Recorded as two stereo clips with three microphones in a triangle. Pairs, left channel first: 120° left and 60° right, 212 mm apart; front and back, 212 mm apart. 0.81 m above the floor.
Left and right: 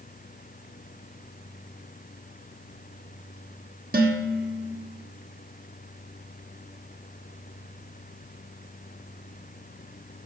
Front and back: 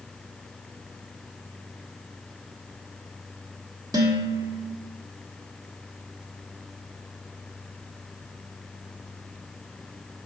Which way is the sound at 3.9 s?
110° right.